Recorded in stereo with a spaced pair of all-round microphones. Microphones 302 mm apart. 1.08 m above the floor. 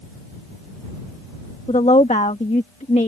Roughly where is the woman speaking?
Left.